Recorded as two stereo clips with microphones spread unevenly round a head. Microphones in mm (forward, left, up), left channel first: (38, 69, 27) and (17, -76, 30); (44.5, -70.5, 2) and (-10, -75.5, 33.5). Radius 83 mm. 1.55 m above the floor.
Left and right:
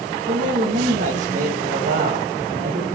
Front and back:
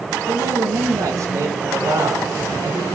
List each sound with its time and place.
0.3 s a man speaking: 145° right, 2 m